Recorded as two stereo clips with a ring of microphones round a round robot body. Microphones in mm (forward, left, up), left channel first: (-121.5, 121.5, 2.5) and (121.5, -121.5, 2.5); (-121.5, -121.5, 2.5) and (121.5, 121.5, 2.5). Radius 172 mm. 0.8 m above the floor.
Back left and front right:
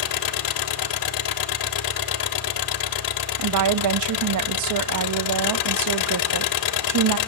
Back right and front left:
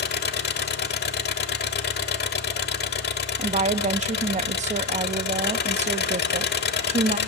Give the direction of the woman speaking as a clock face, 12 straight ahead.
1 o'clock.